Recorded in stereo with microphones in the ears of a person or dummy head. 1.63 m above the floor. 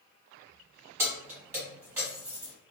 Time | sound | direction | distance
1.0 | keys jangling | 15° right (ahead or behind) | 1.2 m